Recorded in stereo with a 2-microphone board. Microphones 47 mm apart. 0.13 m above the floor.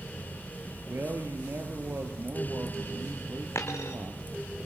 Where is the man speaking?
60° right (ahead or behind), 3.5 m.